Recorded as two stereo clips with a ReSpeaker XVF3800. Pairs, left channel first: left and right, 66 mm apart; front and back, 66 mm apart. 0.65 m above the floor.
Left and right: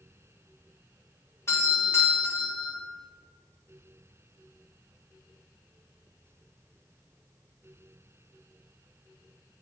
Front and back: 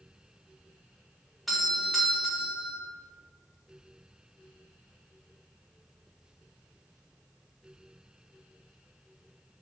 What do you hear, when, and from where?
1.5 s a doorbell: 90° left, 1.4 m